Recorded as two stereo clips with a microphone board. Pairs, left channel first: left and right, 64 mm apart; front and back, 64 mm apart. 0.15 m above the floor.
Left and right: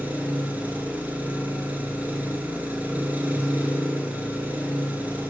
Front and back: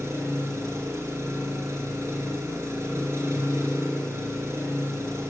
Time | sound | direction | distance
0.0 | an engine running | 150° right | 0.8 m